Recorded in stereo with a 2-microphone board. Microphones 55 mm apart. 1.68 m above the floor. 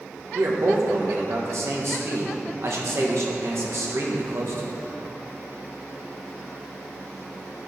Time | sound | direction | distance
0.3 | a man speaking | 60° right (ahead or behind) | 1.6 m